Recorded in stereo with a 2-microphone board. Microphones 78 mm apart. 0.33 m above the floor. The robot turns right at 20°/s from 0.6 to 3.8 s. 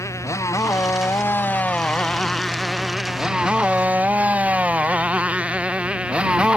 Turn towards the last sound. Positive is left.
turn(degrees=-10)  # may be behind; listen again after turning